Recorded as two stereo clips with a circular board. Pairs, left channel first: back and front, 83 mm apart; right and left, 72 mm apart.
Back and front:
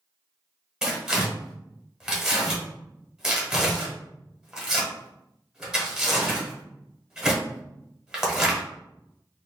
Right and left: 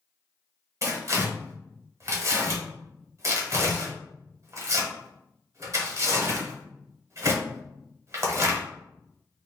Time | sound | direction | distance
0.8 | tearing paper | 80° left | 1.2 m